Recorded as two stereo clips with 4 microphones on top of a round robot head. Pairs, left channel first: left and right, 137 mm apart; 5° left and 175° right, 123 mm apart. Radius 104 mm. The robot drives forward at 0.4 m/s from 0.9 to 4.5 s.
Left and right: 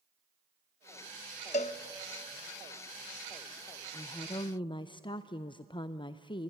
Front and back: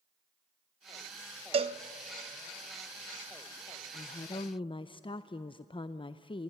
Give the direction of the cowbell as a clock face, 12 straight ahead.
7 o'clock.